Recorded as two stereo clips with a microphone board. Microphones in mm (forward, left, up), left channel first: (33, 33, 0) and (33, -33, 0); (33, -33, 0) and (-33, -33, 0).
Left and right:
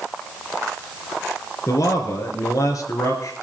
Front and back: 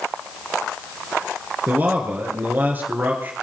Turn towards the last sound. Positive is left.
turn(degrees=120)